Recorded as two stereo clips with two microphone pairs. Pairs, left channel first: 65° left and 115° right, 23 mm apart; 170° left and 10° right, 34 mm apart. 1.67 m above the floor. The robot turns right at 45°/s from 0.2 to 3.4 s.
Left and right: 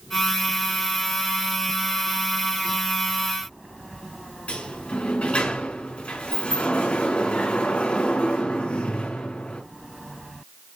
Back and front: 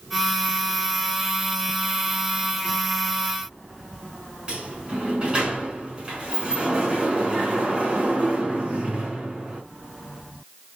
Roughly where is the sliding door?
Ahead left.